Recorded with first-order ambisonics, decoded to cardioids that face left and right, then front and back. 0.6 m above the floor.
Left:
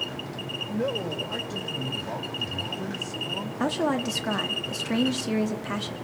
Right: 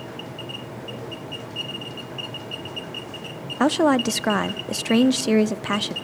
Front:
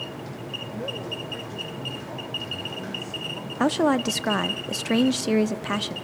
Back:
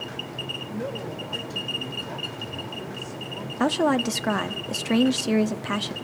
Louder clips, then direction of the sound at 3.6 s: Right 8 dB, even; 85° right.